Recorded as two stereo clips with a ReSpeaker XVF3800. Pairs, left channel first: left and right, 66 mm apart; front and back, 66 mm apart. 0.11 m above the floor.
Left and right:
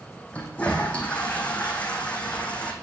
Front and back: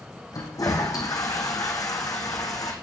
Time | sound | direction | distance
0.3 | a toilet flushing | 20° left | 2.5 m